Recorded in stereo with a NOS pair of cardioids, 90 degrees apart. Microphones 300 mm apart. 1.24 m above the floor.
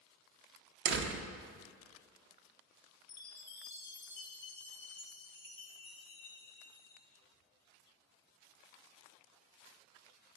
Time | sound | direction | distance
0.8 | a door slam | 45° right | 0.6 m
3.1 | a chime | 40° left | 0.8 m